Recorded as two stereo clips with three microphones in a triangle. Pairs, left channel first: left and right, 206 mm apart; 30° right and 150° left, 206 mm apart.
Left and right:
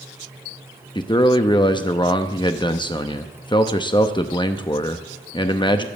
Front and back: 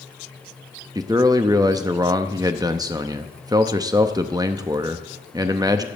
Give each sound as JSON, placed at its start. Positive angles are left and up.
{"t": 0.9, "sound": "a man speaking", "azimuth_deg": 110, "distance_m": 0.5}